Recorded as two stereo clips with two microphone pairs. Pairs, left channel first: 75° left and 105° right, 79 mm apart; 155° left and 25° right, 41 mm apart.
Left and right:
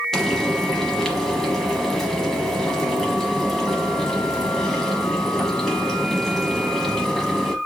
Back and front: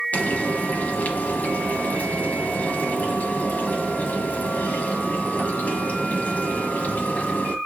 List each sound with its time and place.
0.1 s frying: 155° left, 0.9 m